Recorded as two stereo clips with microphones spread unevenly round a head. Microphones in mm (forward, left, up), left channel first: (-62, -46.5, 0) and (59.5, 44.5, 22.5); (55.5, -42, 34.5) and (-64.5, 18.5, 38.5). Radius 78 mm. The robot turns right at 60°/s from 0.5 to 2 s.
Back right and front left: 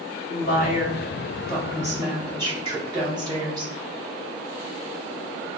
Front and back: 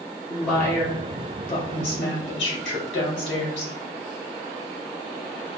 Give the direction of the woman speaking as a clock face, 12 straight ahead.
4 o'clock.